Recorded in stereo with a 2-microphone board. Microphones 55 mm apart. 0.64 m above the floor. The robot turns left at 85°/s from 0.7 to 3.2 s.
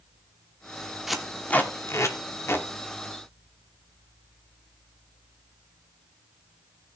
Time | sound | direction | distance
1.1 | tape being pulled | 5° right (ahead or behind) | 1.4 m